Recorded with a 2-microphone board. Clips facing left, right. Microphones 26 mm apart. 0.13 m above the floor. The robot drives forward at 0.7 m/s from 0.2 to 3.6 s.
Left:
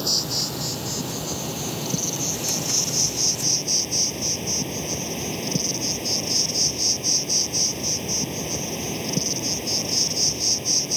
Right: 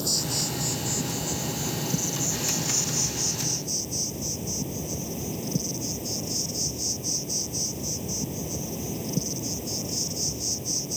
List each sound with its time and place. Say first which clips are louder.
0.0 s an insect: left 4 dB; 30° left (ahead or behind); by 11.0 s 55° left (ahead or behind)